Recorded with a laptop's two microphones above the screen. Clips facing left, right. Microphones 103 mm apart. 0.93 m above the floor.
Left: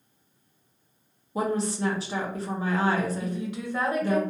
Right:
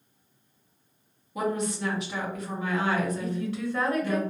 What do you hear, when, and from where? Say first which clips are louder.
1.4 s a woman speaking: left 2 dB; 35° left (ahead or behind), 0.6 m
3.2 s a woman speaking: right 1 dB; 15° left (ahead or behind), 1.3 m